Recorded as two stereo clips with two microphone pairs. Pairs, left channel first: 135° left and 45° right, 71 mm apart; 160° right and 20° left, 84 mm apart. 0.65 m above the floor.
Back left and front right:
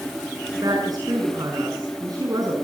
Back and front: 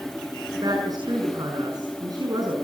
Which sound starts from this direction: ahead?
A woman speaking, at 0.5 s.